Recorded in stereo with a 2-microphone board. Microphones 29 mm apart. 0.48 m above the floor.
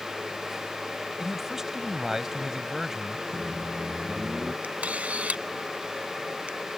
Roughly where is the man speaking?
Centre.